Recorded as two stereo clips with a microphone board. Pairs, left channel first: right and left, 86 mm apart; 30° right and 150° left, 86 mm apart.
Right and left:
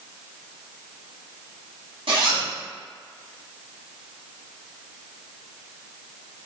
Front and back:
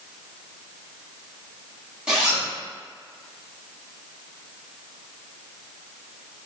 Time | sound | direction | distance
2.1 | a zipper | 70° left | 1.1 m